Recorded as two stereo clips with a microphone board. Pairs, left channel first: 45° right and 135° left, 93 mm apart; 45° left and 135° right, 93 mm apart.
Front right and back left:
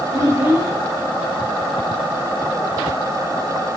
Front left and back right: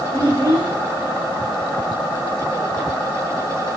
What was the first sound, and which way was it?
A child speaking, 175° right.